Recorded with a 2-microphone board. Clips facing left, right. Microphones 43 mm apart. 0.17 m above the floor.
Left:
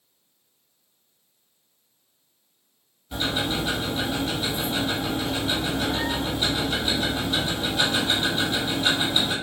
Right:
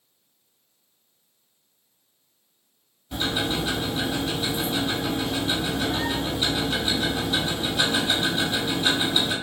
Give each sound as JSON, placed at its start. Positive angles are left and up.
{"t": 3.1, "sound": "ticking", "side_deg": 0, "distance_m": 1.5}